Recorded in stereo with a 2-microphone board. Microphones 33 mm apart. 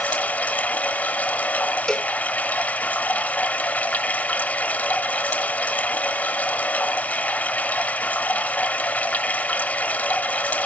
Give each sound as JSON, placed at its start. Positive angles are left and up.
{"t": 0.0, "sound": "running water", "side_deg": 55, "distance_m": 0.8}
{"t": 1.9, "sound": "a cowbell", "side_deg": 20, "distance_m": 0.5}